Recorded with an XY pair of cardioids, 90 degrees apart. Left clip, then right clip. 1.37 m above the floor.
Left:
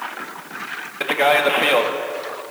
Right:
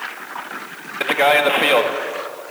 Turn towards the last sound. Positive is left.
turn(degrees=-15)